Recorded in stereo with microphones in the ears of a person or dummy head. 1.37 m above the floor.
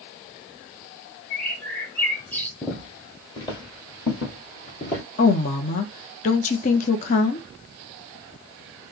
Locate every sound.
1.3 s a bird: 10° left (ahead or behind), 0.7 m
2.6 s footsteps: 25° left (ahead or behind), 2.0 m; by 5.0 s 20° left (ahead or behind), 1.4 m
5.2 s a woman speaking: 45° left (ahead or behind), 0.7 m